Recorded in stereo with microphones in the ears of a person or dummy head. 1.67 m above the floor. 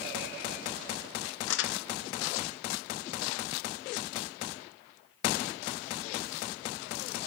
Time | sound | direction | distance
1.5 | crumpling | 80° left | 0.5 m